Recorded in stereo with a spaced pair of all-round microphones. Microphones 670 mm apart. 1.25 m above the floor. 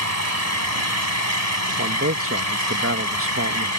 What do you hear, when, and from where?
0.0 s an engine running: 65° right (ahead or behind)
1.8 s a man speaking: 20° right (ahead or behind)